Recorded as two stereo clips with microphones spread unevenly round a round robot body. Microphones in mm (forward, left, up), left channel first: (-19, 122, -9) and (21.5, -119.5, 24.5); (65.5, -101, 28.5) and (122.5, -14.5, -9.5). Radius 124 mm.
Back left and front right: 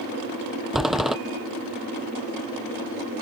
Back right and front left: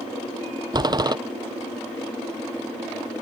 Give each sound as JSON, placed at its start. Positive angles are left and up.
{"t": 0.7, "sound": "a door slam", "azimuth_deg": 10}